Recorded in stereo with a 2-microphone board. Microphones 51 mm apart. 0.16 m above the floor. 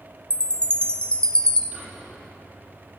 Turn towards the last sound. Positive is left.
turn(degrees=-25)  # may be behind; listen again after turning